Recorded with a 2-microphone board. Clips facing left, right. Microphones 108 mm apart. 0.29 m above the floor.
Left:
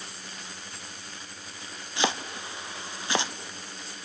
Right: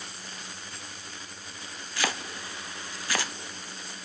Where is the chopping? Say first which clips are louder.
Left 4 dB; 25° left (ahead or behind), 0.8 m.